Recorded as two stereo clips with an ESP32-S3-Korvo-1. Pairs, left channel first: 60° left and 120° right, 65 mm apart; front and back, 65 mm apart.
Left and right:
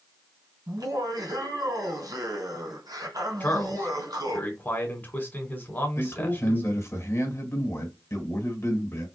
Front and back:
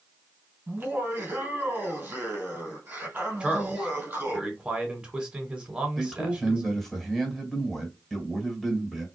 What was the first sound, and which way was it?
Laughter, 115° right.